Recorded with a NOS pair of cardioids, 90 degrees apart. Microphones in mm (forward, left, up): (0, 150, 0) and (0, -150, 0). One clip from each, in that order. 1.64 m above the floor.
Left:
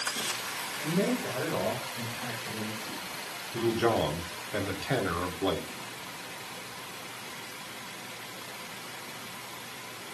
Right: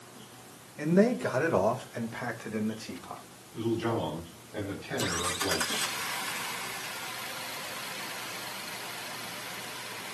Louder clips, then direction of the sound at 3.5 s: Left 4 dB; 70° left.